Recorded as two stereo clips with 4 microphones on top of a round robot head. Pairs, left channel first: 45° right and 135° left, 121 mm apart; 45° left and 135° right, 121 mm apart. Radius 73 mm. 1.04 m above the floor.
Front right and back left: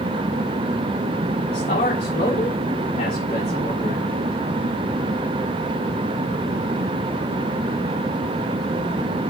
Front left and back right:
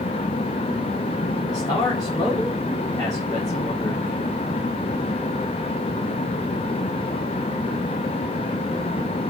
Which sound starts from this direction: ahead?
A man speaking, at 1.5 s.